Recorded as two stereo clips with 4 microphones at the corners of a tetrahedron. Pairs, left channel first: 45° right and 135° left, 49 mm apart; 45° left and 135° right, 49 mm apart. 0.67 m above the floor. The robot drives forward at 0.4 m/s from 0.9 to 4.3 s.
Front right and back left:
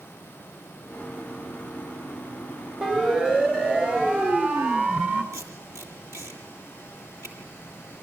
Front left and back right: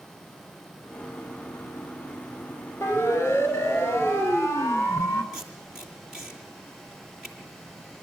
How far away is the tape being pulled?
About 7 m.